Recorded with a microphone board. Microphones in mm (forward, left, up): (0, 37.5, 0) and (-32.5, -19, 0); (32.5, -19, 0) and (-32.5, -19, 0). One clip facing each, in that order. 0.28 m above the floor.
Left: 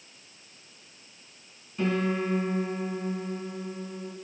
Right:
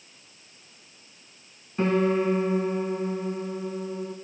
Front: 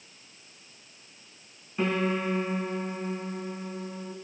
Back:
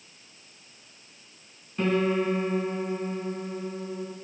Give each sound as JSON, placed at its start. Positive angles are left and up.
{"t": 1.8, "sound": "a piano", "azimuth_deg": -80, "distance_m": 3.5}